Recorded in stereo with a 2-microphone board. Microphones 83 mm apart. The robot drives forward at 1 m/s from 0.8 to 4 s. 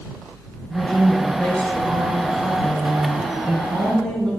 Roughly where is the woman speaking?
Centre.